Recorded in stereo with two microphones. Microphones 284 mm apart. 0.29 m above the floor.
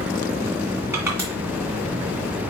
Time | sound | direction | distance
0.9 | crushing | 10° right (ahead or behind) | 1.9 m